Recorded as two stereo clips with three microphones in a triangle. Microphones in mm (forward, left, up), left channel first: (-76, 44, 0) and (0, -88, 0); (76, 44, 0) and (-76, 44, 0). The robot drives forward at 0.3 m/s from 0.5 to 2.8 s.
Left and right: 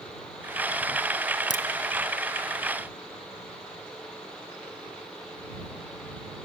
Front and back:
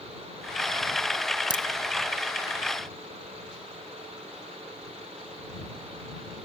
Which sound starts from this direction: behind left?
A crack, at 1.5 s.